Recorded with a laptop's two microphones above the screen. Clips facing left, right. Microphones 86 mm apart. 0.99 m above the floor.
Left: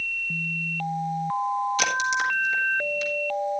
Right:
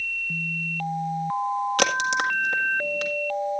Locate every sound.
1.8 s a crack: 60° right (ahead or behind), 1.7 m